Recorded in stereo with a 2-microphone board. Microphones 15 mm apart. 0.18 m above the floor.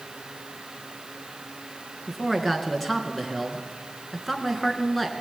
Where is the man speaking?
5° left (ahead or behind), 3 m.